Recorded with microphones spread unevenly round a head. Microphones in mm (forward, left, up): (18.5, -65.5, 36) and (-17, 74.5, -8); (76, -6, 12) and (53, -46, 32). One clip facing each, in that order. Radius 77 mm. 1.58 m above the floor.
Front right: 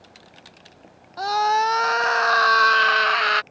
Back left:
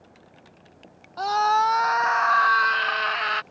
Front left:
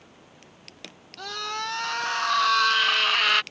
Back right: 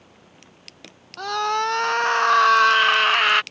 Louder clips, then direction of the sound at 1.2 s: Front right 1 dB, back right 9 dB; 145° right.